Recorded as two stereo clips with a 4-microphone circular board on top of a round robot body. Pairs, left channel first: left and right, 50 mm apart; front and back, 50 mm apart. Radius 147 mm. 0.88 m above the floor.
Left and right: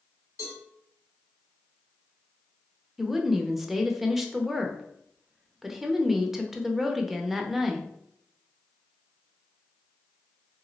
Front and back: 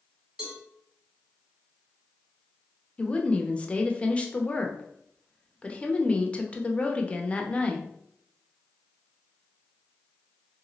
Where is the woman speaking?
10° right, 0.8 m.